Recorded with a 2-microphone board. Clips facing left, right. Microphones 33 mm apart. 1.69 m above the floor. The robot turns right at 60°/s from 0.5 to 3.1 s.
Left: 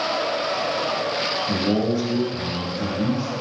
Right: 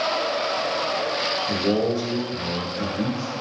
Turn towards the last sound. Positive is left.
turn(degrees=-80)